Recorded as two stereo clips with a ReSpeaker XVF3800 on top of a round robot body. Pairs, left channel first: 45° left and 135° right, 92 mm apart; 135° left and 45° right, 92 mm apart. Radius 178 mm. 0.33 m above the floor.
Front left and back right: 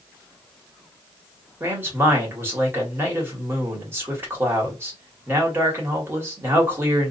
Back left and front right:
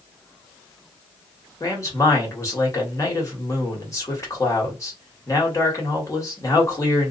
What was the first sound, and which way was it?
A man speaking, 170° left.